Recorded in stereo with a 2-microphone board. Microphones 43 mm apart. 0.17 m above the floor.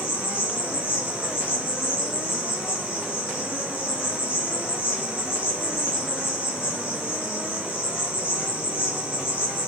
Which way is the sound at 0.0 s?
75° left (ahead or behind).